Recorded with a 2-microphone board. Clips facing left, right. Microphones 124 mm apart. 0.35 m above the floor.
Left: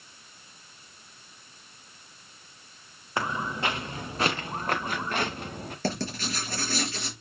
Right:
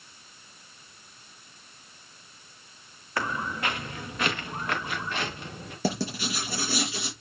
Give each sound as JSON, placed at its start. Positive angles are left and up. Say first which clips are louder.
{"t": 3.2, "sound": "footsteps", "louder": "left 1 dB", "side_deg": 20, "distance_m": 2.5}
{"t": 5.8, "sound": "writing", "louder": "right 2 dB", "side_deg": -10, "distance_m": 5.5}